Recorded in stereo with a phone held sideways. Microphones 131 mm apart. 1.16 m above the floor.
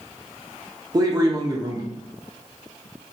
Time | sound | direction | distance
0.9 | a man speaking | 30° right (ahead or behind) | 0.6 m